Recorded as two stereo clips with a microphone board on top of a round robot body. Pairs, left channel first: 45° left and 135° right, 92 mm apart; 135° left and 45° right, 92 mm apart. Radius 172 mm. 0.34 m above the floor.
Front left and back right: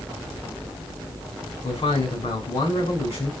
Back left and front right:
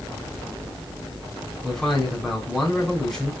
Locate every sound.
1.6 s a man speaking: 50° left, 4 m